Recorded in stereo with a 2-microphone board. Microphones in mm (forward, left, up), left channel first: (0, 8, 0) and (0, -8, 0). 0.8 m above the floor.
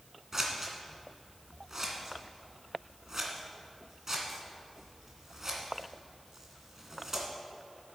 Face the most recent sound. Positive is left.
turn(degrees=-25)  # may be behind; listen again after turning